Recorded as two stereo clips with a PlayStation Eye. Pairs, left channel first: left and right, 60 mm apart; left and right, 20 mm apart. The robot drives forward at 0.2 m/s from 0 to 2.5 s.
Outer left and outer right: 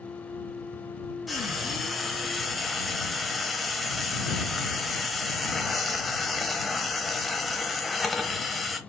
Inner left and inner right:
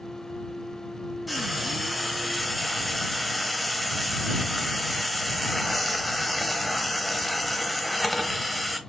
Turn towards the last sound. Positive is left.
turn(degrees=0)  # may be behind; listen again after turning